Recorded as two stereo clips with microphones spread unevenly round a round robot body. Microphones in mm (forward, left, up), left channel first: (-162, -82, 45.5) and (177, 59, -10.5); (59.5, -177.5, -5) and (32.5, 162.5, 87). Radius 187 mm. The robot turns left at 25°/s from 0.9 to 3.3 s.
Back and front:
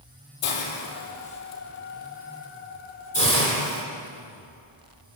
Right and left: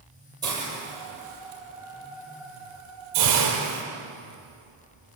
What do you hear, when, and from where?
0.4 s a hiss: 175° right, 6.5 m; by 3.8 s 125° left, 6.5 m